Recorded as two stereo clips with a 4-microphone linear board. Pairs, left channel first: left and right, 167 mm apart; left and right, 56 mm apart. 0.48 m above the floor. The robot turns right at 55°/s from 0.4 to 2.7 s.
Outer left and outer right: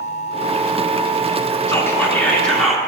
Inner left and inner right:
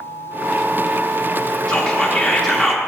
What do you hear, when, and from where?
1.7 s whispering: 15° left (ahead or behind), 0.7 m; by 2.8 s centre (ahead or behind), 0.7 m